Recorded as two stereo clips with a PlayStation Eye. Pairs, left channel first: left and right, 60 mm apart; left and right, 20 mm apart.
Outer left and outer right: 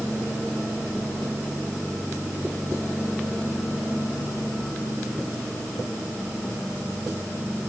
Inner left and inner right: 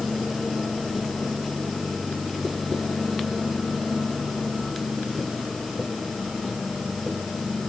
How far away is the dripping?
No dripping in this recording.